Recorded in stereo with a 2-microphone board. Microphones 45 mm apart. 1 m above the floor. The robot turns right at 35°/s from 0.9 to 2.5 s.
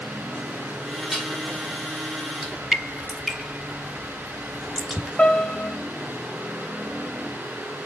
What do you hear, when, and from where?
1.1 s dishes clattering: 5° left (ahead or behind), 2.0 m; by 1.4 s 5° right (ahead or behind), 2.0 m
2.4 s dripping: 5° right (ahead or behind), 2.5 m
5.2 s a piano: 25° left (ahead or behind), 1.5 m